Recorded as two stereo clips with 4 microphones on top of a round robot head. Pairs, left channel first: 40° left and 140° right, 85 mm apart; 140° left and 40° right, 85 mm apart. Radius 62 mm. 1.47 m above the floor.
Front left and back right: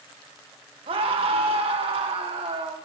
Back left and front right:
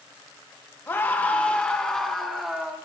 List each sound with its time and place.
0.9 s a scream: 155° right, 2.5 m; by 2.8 s 125° right, 2 m